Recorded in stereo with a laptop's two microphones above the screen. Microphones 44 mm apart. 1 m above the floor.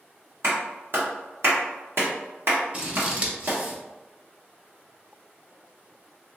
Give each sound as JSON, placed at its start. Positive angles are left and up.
{"t": 0.4, "sound": "a clap", "side_deg": -65, "distance_m": 1.3}
{"t": 2.7, "sound": "scissors", "side_deg": -35, "distance_m": 1.2}